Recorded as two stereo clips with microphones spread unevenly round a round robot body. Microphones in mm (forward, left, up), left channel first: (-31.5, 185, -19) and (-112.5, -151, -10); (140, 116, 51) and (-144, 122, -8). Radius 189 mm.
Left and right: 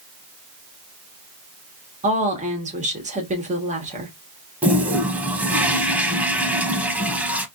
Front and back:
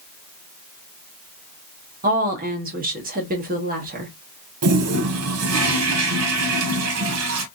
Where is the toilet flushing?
175° left, 0.6 m.